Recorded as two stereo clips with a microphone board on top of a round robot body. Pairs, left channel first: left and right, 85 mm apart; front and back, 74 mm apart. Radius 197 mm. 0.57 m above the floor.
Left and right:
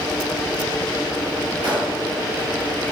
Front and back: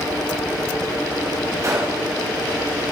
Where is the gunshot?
135° right, 2.5 m.